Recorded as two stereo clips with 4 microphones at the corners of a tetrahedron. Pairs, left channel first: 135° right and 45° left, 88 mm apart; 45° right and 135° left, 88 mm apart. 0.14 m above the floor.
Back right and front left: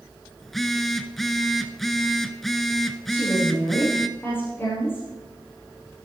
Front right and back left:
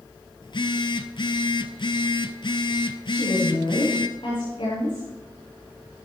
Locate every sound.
0.4 s a phone buzzing: 50° right, 0.9 m
3.1 s a woman speaking: 70° right, 8 m